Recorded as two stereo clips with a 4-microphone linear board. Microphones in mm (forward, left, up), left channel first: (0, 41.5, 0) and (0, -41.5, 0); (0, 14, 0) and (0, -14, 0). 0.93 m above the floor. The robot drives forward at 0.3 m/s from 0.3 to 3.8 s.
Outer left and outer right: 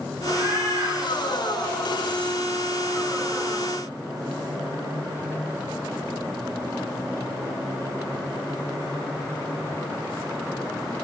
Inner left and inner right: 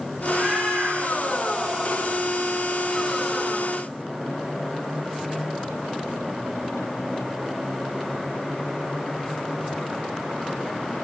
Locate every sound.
0.3 s a cat meowing: 45° right (ahead or behind), 9.5 m